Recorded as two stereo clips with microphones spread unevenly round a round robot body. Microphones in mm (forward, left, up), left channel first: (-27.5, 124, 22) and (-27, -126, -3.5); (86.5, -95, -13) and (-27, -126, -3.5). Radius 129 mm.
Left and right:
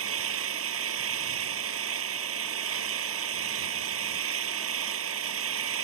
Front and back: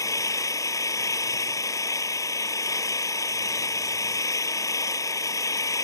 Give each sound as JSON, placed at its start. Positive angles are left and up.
{"t": 0.0, "sound": "an engine running", "azimuth_deg": -45}